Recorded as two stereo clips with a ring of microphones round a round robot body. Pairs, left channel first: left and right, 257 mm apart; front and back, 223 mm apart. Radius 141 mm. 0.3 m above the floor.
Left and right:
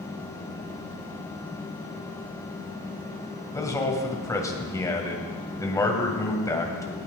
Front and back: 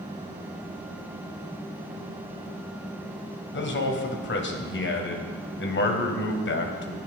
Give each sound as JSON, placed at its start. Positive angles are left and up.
{"t": 3.5, "sound": "a man speaking", "azimuth_deg": 15, "distance_m": 1.9}